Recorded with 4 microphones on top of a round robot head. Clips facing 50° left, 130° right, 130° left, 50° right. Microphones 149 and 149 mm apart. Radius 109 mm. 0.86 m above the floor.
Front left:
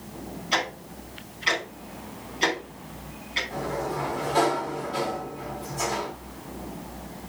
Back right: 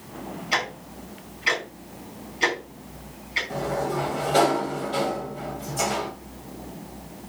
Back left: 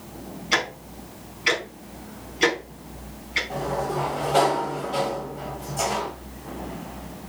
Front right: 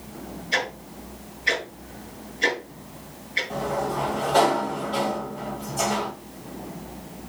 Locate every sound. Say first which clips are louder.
0.5 s ticking: front left 2 dB, back left 2 dB; 150° left, 4.5 m
3.5 s a sliding door: back right 4 dB, even; 145° right, 3 m